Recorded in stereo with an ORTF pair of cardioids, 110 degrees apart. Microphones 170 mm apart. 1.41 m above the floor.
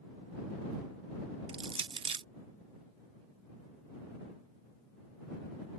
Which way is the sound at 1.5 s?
30° right.